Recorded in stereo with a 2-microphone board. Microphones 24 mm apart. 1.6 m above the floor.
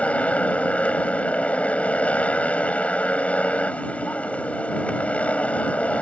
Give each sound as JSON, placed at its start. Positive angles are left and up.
{"t": 0.0, "sound": "a motorcycle", "side_deg": 65}